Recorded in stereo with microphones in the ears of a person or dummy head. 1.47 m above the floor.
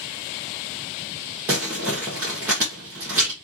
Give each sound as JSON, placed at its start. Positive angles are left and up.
{"t": 1.5, "sound": "crumpling", "side_deg": -15, "distance_m": 0.8}